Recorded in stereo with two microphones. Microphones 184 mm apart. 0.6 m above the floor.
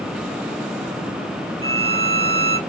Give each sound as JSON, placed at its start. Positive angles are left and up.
{"t": 1.6, "sound": "a violin", "side_deg": -30, "distance_m": 1.2}